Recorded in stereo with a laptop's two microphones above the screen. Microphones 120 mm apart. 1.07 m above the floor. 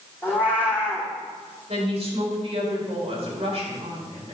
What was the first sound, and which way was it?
A cat meowing, 15° right (ahead or behind).